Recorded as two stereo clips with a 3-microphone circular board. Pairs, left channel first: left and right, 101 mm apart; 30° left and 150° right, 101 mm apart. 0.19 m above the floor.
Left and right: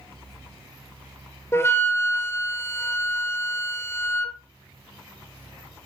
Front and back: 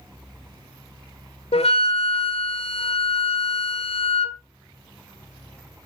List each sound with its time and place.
1.5 s a flute: 30° left, 0.7 m